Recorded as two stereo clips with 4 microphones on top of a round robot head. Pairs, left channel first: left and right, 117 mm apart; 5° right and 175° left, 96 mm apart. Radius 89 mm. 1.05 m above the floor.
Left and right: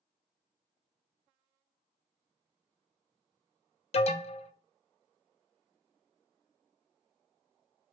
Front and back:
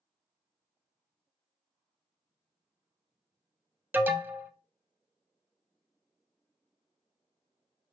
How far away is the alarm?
About 0.7 m.